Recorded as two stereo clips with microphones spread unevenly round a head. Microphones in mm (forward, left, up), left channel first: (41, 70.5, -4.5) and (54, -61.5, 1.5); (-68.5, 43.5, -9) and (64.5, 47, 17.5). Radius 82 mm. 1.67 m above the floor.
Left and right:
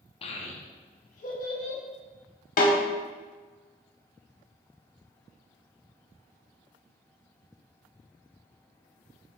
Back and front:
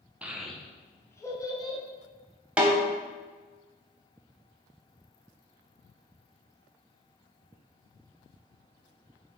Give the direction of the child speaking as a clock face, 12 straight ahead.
10 o'clock.